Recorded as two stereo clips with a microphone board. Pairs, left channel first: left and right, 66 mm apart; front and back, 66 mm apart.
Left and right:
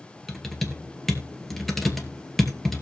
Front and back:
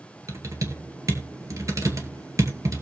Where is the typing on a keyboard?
175° left, 2 m.